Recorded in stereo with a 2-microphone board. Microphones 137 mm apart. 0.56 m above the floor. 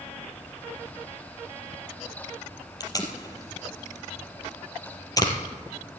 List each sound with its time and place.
2.8 s tape being pulled: 25° left (ahead or behind), 2.5 m